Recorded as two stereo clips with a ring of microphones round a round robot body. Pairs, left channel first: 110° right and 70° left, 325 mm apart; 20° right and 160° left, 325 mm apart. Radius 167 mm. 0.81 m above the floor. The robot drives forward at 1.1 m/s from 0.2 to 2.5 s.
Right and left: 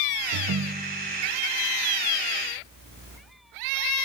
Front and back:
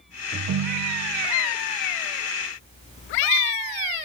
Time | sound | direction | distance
0.3 | a ringtone | 95° left | 0.5 m